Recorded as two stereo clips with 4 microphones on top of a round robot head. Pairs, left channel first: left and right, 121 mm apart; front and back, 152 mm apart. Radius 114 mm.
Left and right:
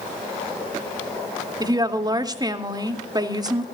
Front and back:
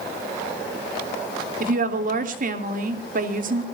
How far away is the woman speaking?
About 2.5 m.